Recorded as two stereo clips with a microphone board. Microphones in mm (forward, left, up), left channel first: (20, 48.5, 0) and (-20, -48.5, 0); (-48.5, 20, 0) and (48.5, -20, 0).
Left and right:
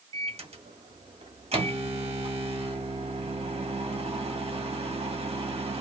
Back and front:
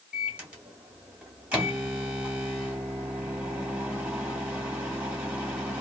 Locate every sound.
0.1 s a microwave: 100° right, 0.9 m